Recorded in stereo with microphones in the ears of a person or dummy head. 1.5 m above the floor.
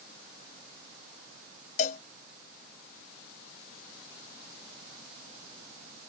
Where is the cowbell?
35° left (ahead or behind).